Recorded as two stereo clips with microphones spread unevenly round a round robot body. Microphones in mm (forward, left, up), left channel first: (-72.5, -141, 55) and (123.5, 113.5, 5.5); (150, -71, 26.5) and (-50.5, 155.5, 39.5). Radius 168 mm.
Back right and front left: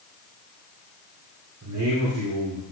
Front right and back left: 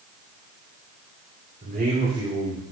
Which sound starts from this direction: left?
A man speaking, at 1.6 s.